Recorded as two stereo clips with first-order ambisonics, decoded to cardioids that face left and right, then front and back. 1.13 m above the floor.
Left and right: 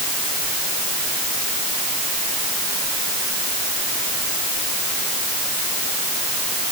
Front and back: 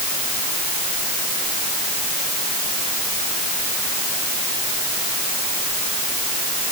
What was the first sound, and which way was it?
Only background noise.